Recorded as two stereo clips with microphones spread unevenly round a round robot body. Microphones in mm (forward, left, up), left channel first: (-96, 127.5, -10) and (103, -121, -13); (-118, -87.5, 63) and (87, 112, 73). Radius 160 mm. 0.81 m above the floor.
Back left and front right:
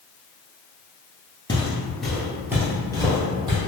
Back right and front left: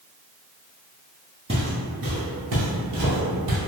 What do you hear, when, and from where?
1.5 s footsteps: 75° left, 0.8 m; by 3.6 s 25° left, 1.6 m